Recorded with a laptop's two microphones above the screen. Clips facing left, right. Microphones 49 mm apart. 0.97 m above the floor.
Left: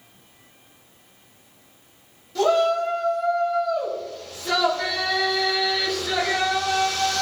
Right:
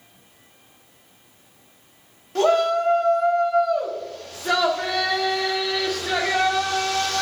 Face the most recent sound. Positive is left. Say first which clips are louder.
# right 1 dB
turn(degrees=-50)  # may be behind; listen again after turning